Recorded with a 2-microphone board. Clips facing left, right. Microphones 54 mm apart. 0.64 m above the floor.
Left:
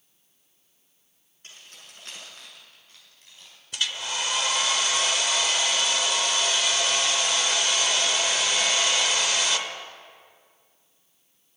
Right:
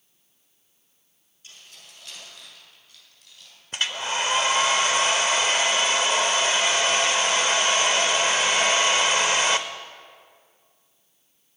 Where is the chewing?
No chewing in this recording.